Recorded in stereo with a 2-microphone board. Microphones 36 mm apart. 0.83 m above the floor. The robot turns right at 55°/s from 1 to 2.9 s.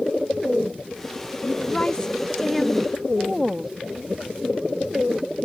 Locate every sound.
1.4 s a woman speaking: 115° left; by 3.7 s 165° right